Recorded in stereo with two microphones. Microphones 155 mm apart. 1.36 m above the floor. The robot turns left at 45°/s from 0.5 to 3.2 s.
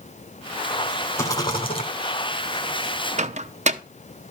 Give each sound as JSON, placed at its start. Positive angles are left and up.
{"t": 1.2, "sound": "a rattle", "azimuth_deg": 160, "distance_m": 2.5}
{"t": 3.2, "sound": "a microwave", "side_deg": -45, "distance_m": 0.7}